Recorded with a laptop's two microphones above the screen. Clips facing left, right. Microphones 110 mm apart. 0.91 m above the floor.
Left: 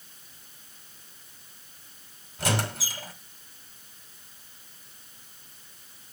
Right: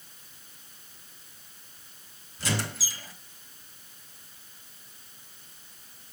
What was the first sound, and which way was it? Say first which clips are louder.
A squeak: left 3 dB; 80° left.